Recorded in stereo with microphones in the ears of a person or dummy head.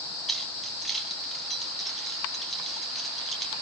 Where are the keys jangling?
Centre (ahead or behind), 3 m.